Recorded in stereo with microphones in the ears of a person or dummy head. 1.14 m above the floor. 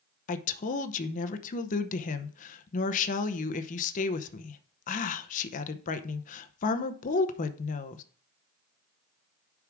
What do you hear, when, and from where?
0.3 s a woman speaking: 40° left (ahead or behind), 0.7 m